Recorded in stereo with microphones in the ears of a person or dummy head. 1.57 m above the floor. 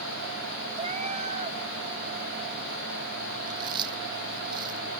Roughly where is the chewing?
Right.